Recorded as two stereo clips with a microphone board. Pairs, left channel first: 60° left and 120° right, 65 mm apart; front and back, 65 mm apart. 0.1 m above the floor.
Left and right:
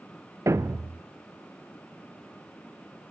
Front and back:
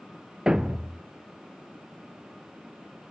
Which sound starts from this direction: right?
A thud, at 0.5 s.